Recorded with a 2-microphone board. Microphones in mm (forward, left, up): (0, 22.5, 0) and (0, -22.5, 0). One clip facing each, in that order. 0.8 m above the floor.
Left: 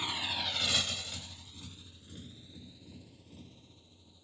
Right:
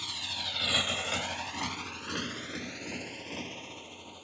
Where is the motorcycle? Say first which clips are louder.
Left 2 dB; 25° left (ahead or behind); by 4.2 s 65° right (ahead or behind).